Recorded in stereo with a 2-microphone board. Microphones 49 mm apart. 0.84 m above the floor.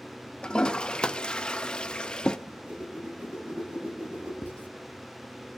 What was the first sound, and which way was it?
A toilet flushing, 20° left (ahead or behind).